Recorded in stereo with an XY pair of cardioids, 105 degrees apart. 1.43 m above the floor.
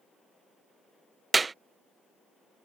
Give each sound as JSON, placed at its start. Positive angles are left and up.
{"t": 1.3, "sound": "a clap", "azimuth_deg": -25}